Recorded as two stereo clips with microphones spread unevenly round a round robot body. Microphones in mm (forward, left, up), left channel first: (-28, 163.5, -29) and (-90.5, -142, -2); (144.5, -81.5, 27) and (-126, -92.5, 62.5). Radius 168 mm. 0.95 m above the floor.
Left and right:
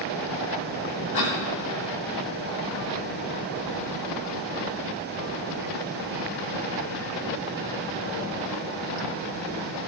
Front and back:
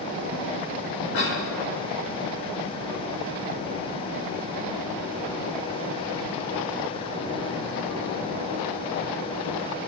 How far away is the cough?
About 4.5 m.